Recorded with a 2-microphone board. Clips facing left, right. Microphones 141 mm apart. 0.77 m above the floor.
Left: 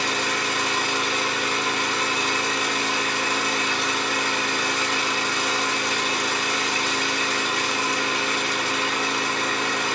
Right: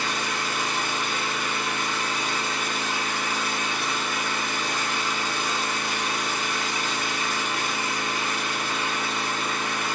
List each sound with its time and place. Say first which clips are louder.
0.0 s an engine running: left 3 dB; 80° left, 1.1 m